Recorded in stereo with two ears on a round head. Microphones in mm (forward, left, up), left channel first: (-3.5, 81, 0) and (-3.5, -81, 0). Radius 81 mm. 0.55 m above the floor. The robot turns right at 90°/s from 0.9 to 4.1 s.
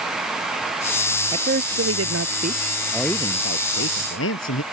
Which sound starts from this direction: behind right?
A man speaking, at 1.3 s.